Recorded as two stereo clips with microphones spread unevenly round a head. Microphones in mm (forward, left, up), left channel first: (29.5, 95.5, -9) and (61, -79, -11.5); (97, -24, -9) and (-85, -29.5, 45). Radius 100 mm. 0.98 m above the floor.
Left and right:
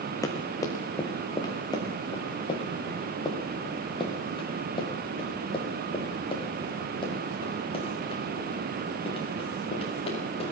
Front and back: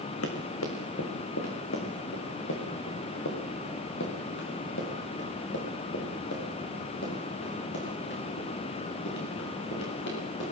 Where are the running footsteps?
30° left, 5 m; by 10.5 s 40° left, 12.5 m.